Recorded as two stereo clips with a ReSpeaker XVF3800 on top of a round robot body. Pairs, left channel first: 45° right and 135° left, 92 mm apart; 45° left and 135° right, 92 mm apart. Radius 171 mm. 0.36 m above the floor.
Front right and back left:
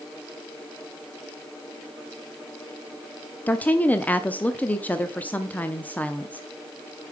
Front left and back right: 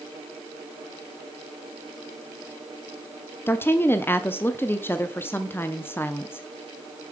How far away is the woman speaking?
About 0.9 m.